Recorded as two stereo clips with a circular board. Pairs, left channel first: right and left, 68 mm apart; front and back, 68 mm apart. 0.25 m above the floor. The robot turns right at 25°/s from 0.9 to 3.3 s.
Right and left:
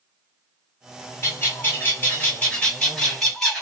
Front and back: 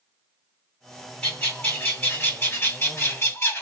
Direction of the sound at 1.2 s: 60° right.